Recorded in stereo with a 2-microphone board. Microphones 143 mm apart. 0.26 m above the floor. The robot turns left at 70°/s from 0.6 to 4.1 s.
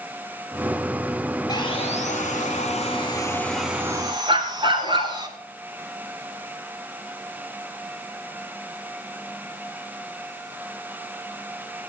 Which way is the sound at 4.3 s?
35° right (ahead or behind).